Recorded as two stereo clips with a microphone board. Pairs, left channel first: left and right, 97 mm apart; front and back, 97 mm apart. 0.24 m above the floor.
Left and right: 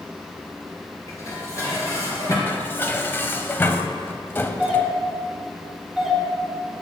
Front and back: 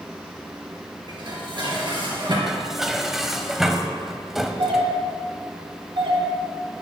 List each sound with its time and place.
1.1 s dishes clattering: 145° left, 3 m
2.5 s dishes clattering: 100° left, 0.8 m
4.6 s a doorbell: 175° left, 4 m